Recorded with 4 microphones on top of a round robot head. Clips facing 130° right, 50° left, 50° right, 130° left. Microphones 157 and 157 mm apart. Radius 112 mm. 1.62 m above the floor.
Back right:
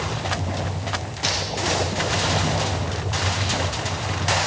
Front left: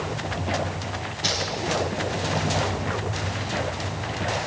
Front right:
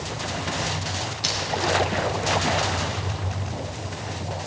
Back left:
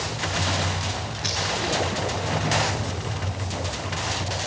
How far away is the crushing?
About 2.5 m.